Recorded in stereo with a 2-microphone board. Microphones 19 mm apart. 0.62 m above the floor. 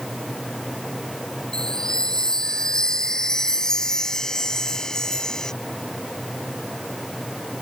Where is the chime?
40° left (ahead or behind).